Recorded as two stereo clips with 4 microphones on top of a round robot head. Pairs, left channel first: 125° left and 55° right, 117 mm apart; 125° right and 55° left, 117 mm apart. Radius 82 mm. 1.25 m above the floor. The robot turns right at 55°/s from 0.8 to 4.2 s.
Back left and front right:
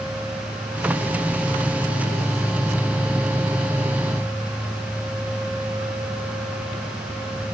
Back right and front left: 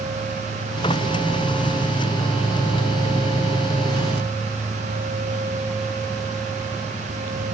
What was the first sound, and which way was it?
Only background noise.